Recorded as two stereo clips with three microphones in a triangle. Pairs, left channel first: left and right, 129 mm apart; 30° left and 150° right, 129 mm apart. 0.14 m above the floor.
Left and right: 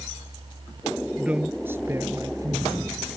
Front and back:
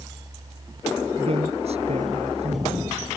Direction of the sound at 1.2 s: 170° right.